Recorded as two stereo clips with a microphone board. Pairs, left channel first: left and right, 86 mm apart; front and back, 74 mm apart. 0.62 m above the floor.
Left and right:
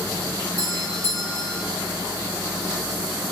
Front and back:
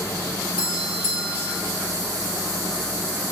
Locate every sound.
0.6 s a doorbell: 125° right, 2 m